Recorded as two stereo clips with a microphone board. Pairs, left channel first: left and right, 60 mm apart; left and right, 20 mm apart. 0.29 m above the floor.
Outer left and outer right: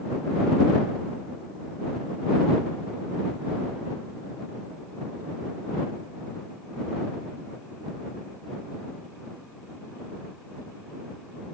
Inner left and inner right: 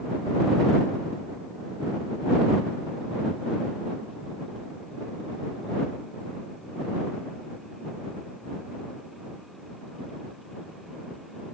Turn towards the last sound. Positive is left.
No sound to turn to.